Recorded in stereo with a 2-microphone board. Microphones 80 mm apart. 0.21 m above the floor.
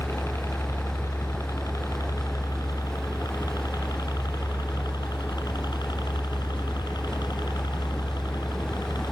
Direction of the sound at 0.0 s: 35° left (ahead or behind).